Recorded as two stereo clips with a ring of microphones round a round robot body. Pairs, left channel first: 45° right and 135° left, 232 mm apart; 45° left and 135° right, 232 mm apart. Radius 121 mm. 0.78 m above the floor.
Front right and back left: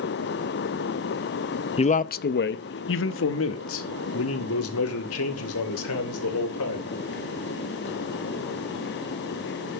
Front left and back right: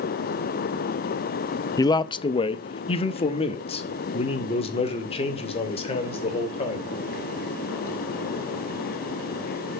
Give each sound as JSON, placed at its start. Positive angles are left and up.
{"t": 1.8, "sound": "a man speaking", "azimuth_deg": -15, "distance_m": 0.5}